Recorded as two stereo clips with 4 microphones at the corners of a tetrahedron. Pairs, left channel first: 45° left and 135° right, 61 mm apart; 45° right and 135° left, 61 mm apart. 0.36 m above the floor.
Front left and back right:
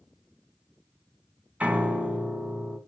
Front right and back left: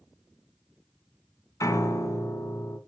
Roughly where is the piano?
Right.